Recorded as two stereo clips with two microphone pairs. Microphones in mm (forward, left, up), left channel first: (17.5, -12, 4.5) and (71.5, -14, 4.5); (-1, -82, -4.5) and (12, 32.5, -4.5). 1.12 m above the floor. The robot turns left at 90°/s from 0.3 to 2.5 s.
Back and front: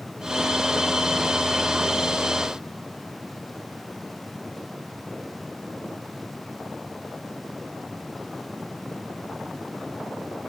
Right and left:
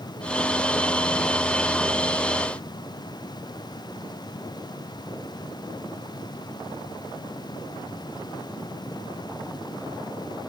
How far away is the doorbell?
No doorbell in this recording.